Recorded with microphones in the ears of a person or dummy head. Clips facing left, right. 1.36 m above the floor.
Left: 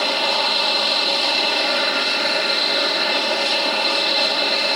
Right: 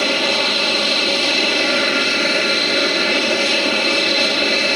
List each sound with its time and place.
0.0 s an aircraft: 30° right (ahead or behind)